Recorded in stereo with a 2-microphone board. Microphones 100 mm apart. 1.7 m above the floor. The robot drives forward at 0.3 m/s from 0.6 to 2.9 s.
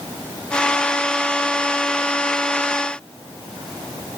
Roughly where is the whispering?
No whispering in this recording.